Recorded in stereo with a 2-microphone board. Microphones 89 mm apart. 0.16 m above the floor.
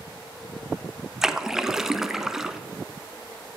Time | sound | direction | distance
1.2 | a splash | 5° right (ahead or behind) | 0.6 m